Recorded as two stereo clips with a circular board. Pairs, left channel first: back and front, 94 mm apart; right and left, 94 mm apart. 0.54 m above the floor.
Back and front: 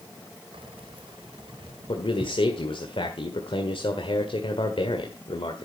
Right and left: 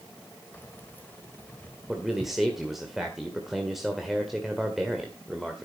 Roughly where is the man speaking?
Behind.